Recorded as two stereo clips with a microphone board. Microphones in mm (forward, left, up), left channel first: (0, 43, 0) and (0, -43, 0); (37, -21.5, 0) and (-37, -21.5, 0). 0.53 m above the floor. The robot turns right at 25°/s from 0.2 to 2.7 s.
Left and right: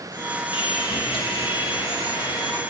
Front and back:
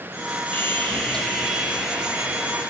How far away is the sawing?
About 1.2 m.